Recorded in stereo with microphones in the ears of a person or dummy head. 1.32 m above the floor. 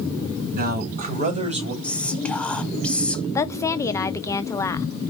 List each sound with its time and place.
0.5 s a man speaking: 50° right (ahead or behind), 1.7 m; by 1.7 s 25° right (ahead or behind), 1.5 m
1.8 s whispering: 5° left (ahead or behind), 0.6 m
3.4 s a woman speaking: 20° left (ahead or behind), 0.5 m